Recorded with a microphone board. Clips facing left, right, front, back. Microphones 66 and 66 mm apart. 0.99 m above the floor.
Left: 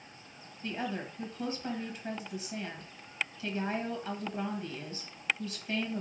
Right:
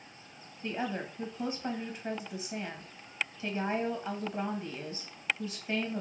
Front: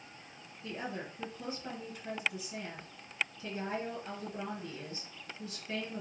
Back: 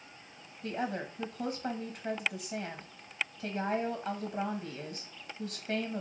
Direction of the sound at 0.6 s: 150° right.